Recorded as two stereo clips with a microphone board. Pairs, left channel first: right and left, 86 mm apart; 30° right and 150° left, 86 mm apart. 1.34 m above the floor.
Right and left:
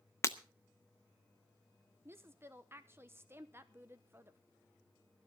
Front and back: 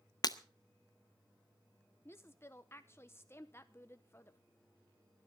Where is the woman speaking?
30° left, 0.9 m.